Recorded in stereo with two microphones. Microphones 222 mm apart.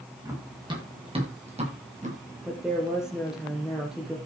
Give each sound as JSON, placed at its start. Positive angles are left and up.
{"t": 0.2, "sound": "running footsteps", "side_deg": -15, "distance_m": 6.5}
{"t": 2.4, "sound": "a woman speaking", "side_deg": 0, "distance_m": 3.5}